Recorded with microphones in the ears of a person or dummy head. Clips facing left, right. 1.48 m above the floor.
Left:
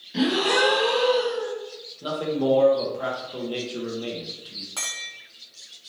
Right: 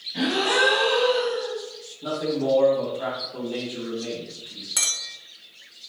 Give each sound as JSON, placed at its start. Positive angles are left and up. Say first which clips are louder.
{"t": 0.1, "sound": "a gasp", "louder": "left 2 dB", "side_deg": 70, "distance_m": 1.0}
{"t": 2.0, "sound": "a man speaking", "louder": "left 1 dB", "side_deg": 55, "distance_m": 1.0}
{"t": 4.8, "sound": "a clink", "louder": "even", "side_deg": -20, "distance_m": 0.9}